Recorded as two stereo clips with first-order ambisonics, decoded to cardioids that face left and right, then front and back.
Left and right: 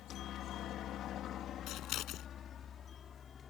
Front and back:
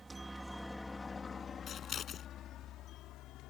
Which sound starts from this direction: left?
A helicopter, at 0.0 s.